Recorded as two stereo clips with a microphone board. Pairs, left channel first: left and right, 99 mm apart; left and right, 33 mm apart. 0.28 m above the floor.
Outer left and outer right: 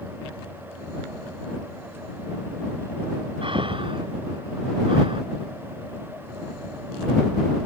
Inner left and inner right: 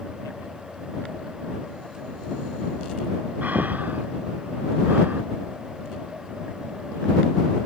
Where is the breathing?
60° right (ahead or behind).